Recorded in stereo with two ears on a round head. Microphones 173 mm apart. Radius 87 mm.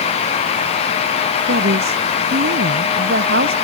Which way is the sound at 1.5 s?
55° right (ahead or behind).